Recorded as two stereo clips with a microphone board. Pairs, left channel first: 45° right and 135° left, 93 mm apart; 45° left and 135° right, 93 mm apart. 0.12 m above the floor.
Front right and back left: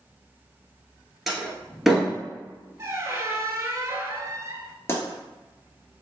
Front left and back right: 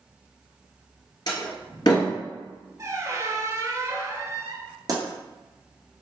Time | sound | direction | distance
1.3 | a door slam | 50° left | 1.3 m
2.8 | a squeak | 175° right | 0.5 m
4.9 | a pop | 100° right | 1.3 m